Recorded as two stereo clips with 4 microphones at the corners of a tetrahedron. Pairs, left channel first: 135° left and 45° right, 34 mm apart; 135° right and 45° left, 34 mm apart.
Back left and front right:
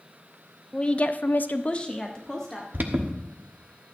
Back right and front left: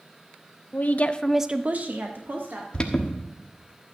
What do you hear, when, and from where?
0.7 s a woman speaking: 160° right, 1.0 m; by 2.6 s 60° left, 1.9 m
2.7 s an alarm: 70° right, 1.2 m